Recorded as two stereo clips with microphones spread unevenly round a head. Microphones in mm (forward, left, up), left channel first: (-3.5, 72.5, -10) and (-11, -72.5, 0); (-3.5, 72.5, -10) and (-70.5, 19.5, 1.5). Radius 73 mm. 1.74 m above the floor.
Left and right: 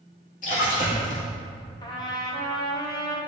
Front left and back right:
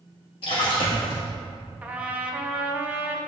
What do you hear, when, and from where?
0.4 s a splash: 45° left, 2 m
1.8 s a trumpet: 150° left, 1.1 m